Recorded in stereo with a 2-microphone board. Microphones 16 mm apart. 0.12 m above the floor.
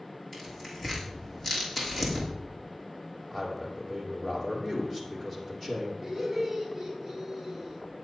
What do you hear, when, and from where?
0.3 s tearing paper: 10° left (ahead or behind), 6 m
3.3 s a man speaking: 10° left (ahead or behind), 5.5 m
6.0 s laughter: 10° right (ahead or behind), 5.5 m